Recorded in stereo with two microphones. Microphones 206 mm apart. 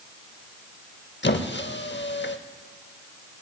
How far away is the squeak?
About 0.7 m.